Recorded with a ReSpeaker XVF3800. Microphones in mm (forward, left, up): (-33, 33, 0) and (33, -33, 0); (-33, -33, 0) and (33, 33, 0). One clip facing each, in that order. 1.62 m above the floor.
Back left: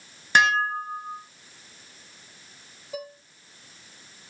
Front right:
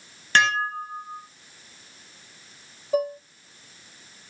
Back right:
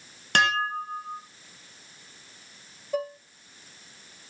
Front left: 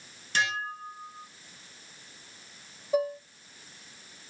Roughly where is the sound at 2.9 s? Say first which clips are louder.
Front right 13 dB, front left 3 dB; ahead right.